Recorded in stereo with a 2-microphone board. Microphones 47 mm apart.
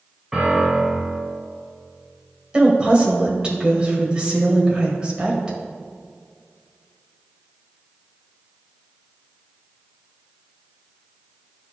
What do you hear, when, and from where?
0.3 s a piano: 5° right (ahead or behind), 2.5 m
2.5 s a woman speaking: 20° right (ahead or behind), 1.6 m